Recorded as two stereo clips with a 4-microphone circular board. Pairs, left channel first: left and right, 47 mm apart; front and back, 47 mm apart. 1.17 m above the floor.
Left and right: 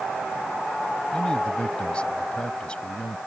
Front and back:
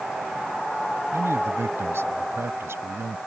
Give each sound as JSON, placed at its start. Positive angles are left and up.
{"t": 1.1, "sound": "a man speaking", "azimuth_deg": 160}